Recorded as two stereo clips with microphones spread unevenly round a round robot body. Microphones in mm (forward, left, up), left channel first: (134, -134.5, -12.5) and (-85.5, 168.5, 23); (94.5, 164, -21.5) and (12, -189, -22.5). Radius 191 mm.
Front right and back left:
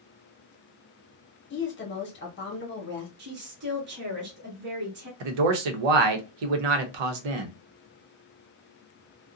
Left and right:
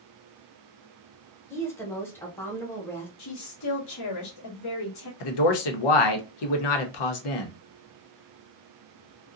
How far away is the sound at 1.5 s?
About 1.1 m.